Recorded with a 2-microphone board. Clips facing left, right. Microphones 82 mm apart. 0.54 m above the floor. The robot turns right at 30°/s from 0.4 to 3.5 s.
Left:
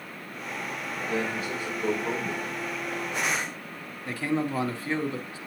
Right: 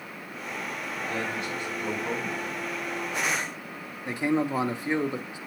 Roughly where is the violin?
I don't hear a violin.